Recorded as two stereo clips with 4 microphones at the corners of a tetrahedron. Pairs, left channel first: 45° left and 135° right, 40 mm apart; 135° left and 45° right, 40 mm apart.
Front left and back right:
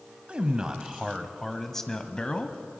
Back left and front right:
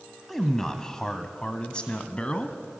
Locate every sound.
0.3 s a man speaking: 150° right, 1.2 m; by 2.6 s 90° left, 1.4 m